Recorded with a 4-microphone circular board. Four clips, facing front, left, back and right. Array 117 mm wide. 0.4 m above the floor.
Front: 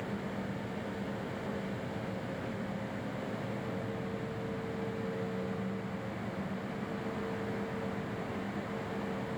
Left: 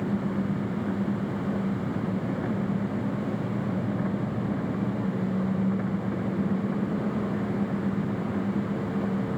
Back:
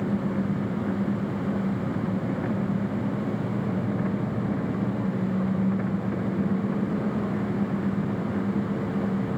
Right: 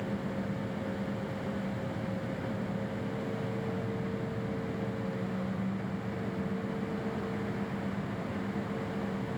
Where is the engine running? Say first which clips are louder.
Left 7 dB, back 11 dB; 140° left.